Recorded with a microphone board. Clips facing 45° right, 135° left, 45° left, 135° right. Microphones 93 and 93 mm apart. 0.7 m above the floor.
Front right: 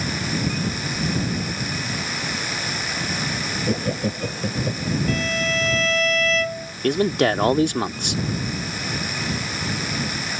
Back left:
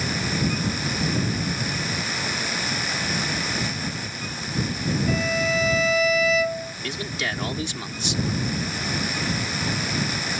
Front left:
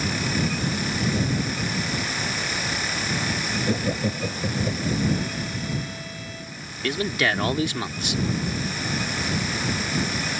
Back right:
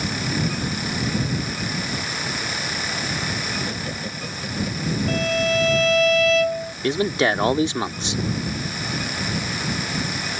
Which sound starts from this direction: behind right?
A violin, at 5.1 s.